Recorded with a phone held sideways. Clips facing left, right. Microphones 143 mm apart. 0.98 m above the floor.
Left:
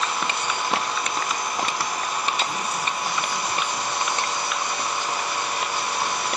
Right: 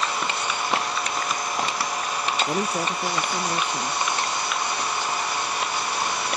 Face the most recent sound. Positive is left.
turn(degrees=-70)  # may be behind; listen again after turning